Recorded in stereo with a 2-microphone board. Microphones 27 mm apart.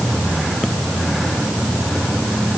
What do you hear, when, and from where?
Only background noise.